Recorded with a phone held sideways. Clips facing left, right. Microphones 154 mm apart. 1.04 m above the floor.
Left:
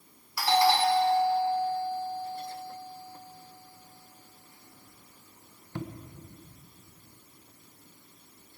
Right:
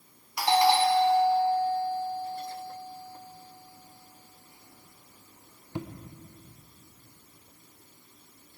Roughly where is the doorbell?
Centre.